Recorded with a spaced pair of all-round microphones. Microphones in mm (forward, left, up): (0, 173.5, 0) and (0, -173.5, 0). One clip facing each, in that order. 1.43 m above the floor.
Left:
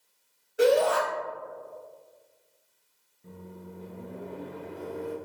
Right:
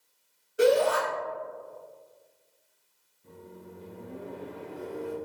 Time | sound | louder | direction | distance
0.6 | a shout | even | centre (ahead or behind) | 1.6 m
3.2 | a microwave | left 2 dB | 70° left (ahead or behind) | 1.0 m